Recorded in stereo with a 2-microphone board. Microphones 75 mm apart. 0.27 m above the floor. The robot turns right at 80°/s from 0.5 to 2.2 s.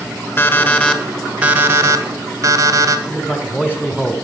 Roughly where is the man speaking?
Left.